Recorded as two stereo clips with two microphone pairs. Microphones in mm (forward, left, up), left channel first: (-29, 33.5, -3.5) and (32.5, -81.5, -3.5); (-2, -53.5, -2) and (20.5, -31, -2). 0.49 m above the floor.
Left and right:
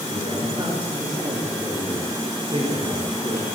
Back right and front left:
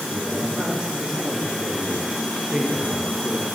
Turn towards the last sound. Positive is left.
turn(degrees=-25)